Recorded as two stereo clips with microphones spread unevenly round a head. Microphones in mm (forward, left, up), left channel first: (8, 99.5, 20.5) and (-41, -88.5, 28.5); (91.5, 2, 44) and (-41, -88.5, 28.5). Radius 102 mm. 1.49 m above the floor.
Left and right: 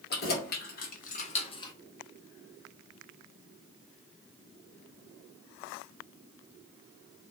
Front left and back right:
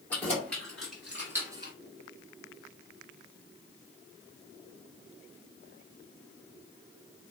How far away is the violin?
No violin in this recording.